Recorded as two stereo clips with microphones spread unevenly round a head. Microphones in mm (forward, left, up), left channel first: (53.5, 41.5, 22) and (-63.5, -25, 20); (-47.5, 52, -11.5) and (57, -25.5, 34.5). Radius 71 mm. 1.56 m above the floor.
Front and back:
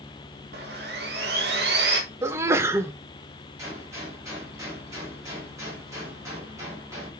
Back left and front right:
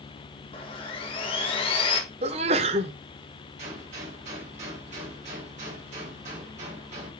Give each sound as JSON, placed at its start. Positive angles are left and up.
{"t": 0.5, "sound": "sawing", "azimuth_deg": -155, "distance_m": 1.7}
{"t": 2.2, "sound": "a sneeze", "azimuth_deg": -80, "distance_m": 0.8}
{"t": 3.6, "sound": "a gunshot", "azimuth_deg": -80, "distance_m": 3.5}